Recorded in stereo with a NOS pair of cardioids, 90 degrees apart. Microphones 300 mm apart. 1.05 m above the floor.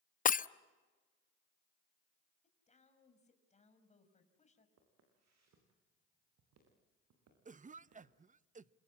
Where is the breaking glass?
30° left, 0.7 m.